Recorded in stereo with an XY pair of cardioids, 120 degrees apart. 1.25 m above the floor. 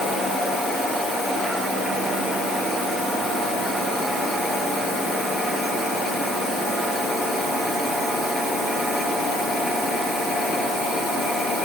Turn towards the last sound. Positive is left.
No sound to turn to.